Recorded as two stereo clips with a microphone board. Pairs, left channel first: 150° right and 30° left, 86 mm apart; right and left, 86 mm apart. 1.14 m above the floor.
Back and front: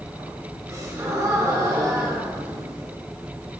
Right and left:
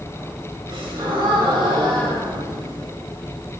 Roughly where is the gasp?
Left.